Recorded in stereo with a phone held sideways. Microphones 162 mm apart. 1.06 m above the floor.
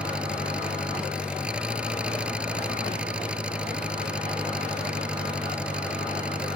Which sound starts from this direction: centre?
An engine running, at 0.0 s.